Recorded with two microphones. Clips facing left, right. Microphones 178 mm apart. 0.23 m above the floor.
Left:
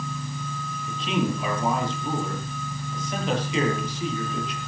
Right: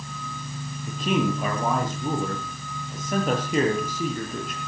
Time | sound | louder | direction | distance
0.9 | a man speaking | right 2 dB | 45° right (ahead or behind) | 6.5 m